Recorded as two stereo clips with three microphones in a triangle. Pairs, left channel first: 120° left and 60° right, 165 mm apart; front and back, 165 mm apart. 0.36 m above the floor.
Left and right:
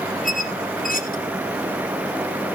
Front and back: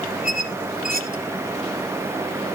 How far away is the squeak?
About 2 m.